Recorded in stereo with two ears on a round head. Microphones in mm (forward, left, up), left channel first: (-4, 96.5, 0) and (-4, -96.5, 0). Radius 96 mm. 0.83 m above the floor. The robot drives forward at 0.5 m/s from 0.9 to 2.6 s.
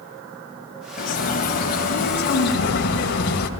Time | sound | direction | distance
1.0 | a bird | 40° left (ahead or behind) | 3.5 m